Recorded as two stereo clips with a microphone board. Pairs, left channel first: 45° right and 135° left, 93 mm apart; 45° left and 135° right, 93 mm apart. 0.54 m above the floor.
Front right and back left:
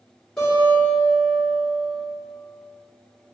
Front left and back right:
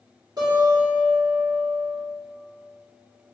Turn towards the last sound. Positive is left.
turn(degrees=-125)